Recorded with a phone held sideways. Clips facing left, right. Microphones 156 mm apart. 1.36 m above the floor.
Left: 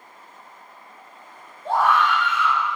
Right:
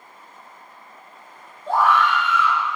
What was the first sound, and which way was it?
A scream, 60° left (ahead or behind).